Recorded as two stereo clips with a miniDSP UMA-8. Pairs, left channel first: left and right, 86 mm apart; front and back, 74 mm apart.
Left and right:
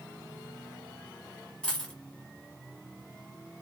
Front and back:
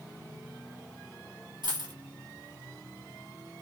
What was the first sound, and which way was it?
A dropped coin, 170° left.